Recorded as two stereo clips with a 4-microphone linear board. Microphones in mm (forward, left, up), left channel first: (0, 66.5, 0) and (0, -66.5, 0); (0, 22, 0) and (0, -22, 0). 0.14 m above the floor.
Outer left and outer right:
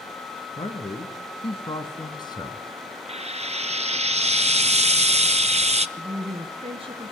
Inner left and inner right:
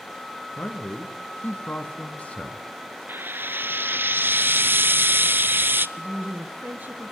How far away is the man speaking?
About 2.5 m.